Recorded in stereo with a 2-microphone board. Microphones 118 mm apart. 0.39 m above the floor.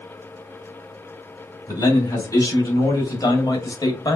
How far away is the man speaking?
About 3 m.